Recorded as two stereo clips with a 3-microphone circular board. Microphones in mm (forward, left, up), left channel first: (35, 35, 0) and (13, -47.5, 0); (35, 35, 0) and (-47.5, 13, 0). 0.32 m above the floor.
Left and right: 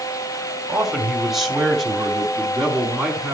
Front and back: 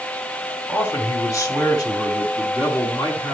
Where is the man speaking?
25° right, 1.9 m; by 3.3 s 10° right, 4 m.